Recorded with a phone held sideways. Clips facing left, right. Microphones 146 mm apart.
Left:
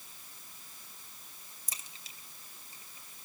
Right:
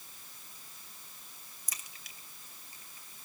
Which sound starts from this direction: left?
A crack, at 1.7 s.